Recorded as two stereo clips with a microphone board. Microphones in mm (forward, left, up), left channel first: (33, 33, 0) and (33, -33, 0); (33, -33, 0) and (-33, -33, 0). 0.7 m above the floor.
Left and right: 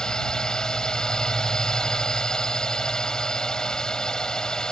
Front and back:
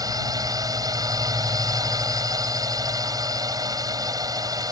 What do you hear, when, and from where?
0.0 s a drone: 170° left